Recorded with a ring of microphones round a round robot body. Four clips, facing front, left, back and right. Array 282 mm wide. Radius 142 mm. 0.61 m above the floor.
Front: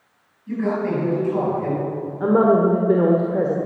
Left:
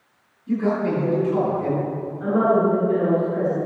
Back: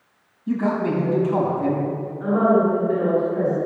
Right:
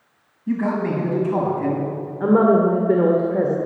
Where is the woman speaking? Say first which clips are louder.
Right 3 dB, front 2 dB; 50° right, 1.8 m.